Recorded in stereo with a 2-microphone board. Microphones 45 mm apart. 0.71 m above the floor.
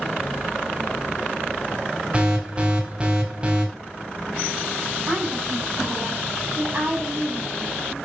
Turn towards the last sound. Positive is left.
turn(degrees=-30)  # may be behind; listen again after turning